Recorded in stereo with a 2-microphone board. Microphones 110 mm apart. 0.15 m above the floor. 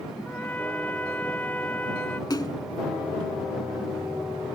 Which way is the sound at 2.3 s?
40° left (ahead or behind).